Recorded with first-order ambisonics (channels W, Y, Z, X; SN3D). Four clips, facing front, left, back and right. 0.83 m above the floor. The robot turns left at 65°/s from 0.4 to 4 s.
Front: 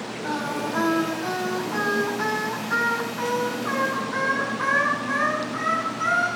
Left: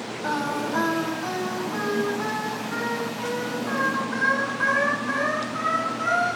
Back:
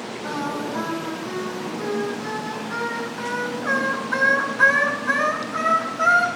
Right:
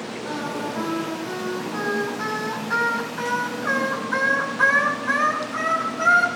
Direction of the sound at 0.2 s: 80° left.